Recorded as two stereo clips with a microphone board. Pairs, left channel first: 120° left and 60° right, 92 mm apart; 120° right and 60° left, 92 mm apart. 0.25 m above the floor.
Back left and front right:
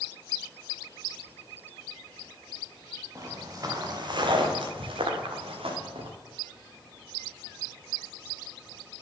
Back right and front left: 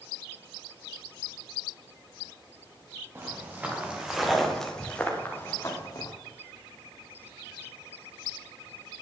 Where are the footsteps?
5° right, 3.5 m; by 6.1 s 70° right, 3 m.